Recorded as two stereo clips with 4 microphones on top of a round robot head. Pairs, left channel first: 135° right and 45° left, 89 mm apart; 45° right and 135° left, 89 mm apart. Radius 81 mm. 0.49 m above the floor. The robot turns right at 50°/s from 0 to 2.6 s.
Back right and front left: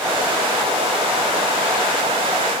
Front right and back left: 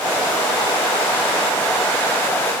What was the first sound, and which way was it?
Only background noise.